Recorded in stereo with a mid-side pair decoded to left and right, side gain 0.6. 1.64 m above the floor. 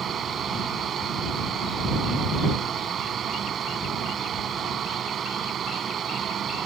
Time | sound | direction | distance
0.0 | a fan | 45° right | ?